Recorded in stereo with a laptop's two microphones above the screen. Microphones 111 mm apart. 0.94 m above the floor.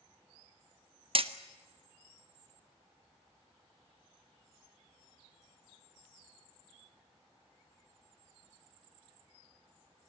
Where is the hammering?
55° right (ahead or behind), 1.0 m.